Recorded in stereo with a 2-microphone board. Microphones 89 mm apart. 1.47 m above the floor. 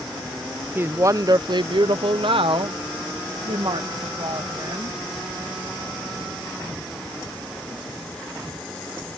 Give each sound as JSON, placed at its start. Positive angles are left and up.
{"t": 0.8, "sound": "a woman speaking", "side_deg": -25}